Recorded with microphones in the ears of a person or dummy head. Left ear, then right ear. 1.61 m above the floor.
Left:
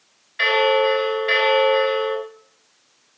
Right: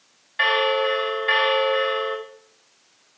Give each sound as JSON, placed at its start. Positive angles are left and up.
{"t": 0.4, "sound": "a bell", "side_deg": -15, "distance_m": 1.2}